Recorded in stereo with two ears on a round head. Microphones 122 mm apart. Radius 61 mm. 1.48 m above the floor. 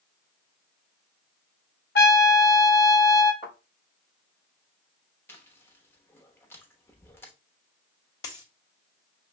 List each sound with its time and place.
1.9 s a trumpet: 85° left, 1.0 m
3.4 s a thud: 35° left (ahead or behind), 4 m
5.3 s chewing: 15° left (ahead or behind), 0.9 m
8.2 s a dropped coin: 25° left (ahead or behind), 1.4 m